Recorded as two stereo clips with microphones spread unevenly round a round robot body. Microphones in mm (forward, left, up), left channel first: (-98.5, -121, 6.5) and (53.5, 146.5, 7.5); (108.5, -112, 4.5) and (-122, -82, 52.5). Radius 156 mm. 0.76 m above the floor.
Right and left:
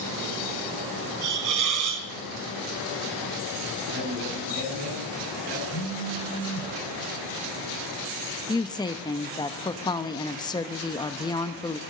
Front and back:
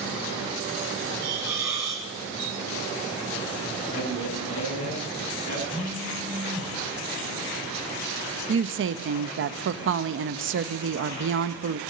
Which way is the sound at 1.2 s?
90° left.